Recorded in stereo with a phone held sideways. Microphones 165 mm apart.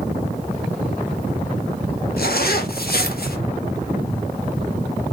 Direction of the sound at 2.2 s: 70° left (ahead or behind).